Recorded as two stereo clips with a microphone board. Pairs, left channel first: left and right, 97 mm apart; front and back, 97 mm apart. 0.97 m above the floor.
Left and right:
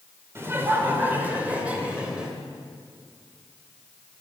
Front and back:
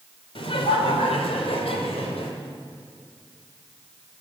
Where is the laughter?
25° right, 3 m; by 2.3 s 10° right, 3.5 m.